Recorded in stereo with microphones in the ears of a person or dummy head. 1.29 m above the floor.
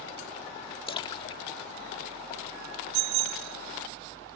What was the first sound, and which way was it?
A splash, 30° left (ahead or behind).